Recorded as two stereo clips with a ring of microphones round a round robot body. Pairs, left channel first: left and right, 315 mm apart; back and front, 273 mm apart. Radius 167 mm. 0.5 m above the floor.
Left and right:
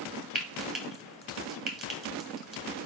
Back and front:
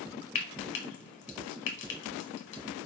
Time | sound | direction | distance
0.3 | frying | straight behind | 2 m